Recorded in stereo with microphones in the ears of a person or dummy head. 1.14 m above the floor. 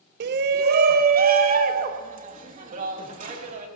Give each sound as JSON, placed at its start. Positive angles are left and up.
{"t": 0.2, "sound": "a shout", "side_deg": -60, "distance_m": 0.7}